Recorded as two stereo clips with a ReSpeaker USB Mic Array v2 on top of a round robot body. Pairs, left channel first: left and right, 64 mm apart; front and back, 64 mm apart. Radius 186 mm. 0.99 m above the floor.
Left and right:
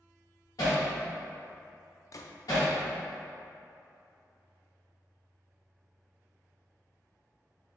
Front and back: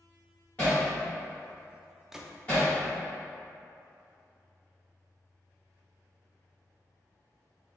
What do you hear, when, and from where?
0.6 s hammering: 70° left, 0.8 m
2.1 s a gunshot: 100° left, 0.6 m